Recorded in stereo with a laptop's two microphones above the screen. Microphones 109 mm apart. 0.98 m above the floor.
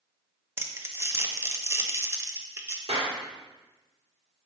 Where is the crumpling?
25° right (ahead or behind), 0.6 m.